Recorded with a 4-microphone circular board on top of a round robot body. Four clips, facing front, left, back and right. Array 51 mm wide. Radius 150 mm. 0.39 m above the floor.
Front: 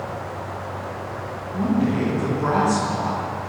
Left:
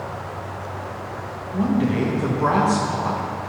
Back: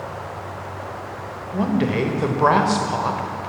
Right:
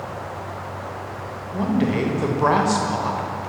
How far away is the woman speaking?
About 2 m.